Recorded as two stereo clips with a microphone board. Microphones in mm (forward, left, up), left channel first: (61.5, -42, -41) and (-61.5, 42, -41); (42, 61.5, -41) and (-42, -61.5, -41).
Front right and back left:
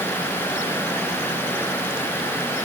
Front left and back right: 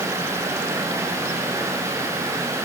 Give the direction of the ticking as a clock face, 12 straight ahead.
I don't hear ticking.